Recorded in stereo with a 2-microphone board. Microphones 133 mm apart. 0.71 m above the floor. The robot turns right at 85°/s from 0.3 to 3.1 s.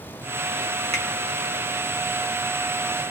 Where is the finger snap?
55° right (ahead or behind), 1.6 m; by 1.1 s 60° right (ahead or behind), 1.6 m.